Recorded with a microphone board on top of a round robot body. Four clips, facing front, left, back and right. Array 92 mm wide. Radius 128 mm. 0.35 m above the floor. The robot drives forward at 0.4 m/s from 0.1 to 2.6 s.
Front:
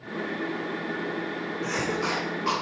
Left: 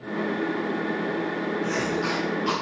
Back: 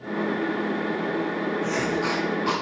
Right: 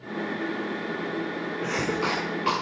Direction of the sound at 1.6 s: 70° right.